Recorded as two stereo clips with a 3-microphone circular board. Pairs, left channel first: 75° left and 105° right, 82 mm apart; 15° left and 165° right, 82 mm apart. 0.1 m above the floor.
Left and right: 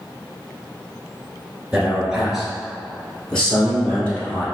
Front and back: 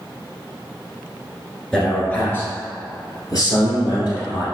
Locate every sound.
1.7 s a man speaking: 55° right, 1.2 m; by 4.5 s 5° left, 2 m